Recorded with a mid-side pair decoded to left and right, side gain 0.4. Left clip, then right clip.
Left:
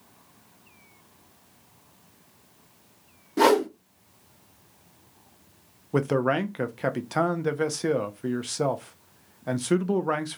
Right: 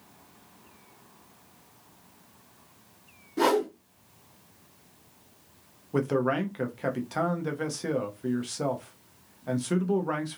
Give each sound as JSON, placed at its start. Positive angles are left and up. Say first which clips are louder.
{"t": 3.4, "sound": "a whoosh", "louder": "left 4 dB", "azimuth_deg": 55, "distance_m": 0.9}
{"t": 5.9, "sound": "a man speaking", "louder": "left 3 dB", "azimuth_deg": 40, "distance_m": 0.7}